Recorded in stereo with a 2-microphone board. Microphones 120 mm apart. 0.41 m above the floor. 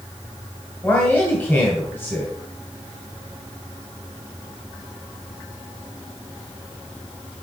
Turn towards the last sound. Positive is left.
turn(degrees=15)  # may be behind; listen again after turning